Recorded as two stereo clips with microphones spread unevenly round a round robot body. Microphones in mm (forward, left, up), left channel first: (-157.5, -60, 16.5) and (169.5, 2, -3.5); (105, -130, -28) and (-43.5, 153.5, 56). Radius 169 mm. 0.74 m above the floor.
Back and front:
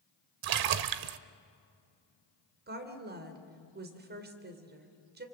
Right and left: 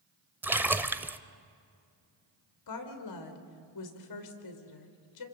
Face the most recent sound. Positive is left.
turn(degrees=-50)